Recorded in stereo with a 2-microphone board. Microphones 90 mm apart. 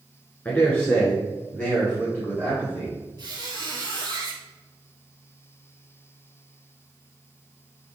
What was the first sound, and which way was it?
A man speaking, 20° left (ahead or behind).